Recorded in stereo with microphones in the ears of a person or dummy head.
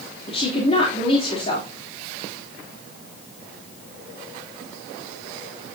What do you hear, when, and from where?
0.3 s a woman speaking: 30° left (ahead or behind), 3 m